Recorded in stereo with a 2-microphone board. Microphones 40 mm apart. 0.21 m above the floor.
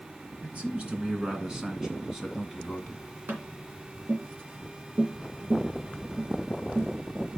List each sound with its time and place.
0.4 s a man speaking: 40° right (ahead or behind), 3 m; by 3.0 s 15° left (ahead or behind), 2 m
3.3 s tapping: 60° right (ahead or behind), 2 m